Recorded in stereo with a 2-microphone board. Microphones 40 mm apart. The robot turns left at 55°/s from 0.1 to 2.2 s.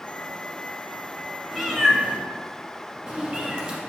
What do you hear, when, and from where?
1.5 s a cat meowing: 5° right (ahead or behind), 1.2 m; by 3.8 s 25° right (ahead or behind), 1.2 m